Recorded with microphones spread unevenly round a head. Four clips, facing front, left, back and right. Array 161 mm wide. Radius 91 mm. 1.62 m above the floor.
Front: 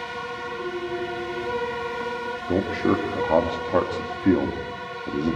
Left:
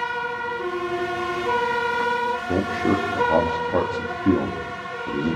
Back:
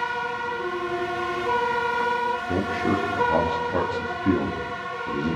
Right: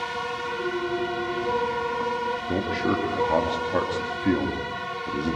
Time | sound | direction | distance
2.5 | a man speaking | 25° left | 3 m